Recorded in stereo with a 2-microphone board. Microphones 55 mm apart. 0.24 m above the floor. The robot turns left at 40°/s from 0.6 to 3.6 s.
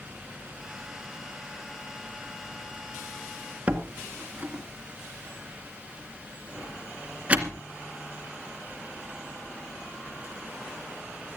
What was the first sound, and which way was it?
A door slam, 25° right (ahead or behind).